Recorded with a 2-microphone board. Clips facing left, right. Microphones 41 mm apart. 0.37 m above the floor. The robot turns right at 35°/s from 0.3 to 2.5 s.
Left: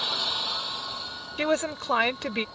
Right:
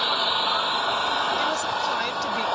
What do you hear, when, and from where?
0.0 s an engine running: 150° right; by 2.5 s 70° right
1.4 s a woman speaking: 95° left; by 2.5 s 135° left